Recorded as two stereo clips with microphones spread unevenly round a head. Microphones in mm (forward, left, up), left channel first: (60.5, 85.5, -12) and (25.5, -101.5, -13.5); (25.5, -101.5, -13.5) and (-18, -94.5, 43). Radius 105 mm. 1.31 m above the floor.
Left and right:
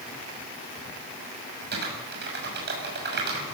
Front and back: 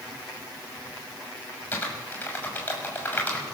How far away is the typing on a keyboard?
About 7 m.